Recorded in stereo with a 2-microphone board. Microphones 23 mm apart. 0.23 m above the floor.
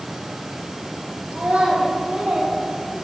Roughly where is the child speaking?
Right.